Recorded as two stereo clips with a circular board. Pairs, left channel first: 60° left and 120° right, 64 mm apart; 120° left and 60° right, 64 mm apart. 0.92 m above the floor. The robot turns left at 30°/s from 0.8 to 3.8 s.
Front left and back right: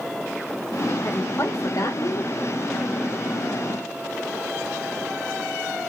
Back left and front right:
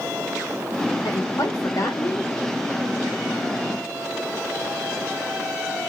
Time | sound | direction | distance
1.0 | a woman speaking | 110° left | 2.5 m